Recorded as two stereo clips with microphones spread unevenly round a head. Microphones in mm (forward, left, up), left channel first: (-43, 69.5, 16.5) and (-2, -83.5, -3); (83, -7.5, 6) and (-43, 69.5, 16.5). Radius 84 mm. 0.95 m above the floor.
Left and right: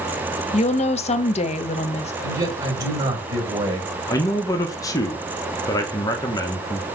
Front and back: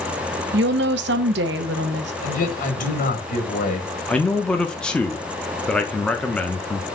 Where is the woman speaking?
155° left, 0.9 m.